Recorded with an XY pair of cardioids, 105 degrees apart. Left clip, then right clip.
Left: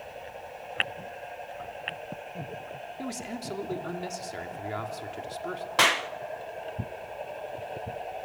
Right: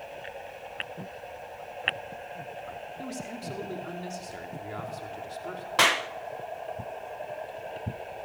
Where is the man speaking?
30° left, 2.5 m.